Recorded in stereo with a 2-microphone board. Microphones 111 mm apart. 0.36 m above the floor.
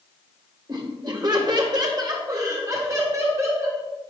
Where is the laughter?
40° right (ahead or behind), 1.3 m; by 3.8 s 25° right (ahead or behind), 2.5 m.